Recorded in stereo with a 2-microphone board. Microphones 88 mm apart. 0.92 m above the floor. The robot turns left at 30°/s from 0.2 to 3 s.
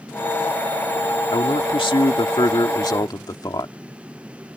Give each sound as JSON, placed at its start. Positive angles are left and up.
{"t": 1.3, "sound": "a man speaking", "azimuth_deg": 105}